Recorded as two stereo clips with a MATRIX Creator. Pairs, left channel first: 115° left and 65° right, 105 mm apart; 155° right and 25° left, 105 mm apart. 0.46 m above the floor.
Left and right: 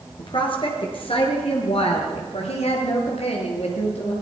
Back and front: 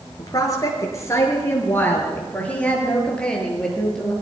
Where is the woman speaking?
150° left, 6 m; by 4.1 s 115° left, 8 m.